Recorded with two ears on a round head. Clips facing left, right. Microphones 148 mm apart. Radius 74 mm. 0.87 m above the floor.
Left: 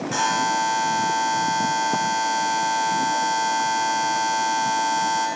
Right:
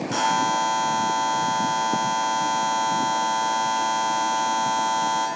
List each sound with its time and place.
0.1 s a buzzer: 10° left (ahead or behind), 7 m